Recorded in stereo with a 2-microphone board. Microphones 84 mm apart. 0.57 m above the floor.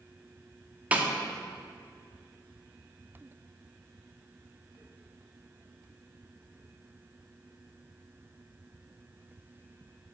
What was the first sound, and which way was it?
A snare drum, 20° right (ahead or behind).